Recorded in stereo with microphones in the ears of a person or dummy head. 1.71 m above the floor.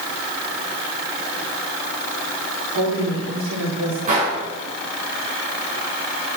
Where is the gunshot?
45° right (ahead or behind), 7.5 m.